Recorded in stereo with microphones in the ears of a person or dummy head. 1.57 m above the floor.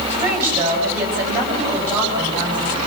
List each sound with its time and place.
0.1 s a woman speaking: 5° right (ahead or behind), 9 m